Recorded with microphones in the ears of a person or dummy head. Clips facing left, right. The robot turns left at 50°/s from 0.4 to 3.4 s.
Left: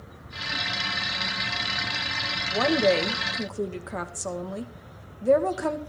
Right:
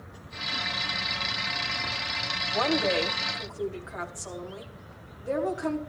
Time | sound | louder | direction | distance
2.5 | a woman speaking | left 4 dB | 160° left | 2 m